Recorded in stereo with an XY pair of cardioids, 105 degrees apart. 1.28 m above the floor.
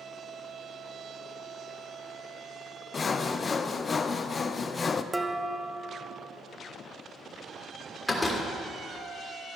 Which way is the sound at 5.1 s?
10° right.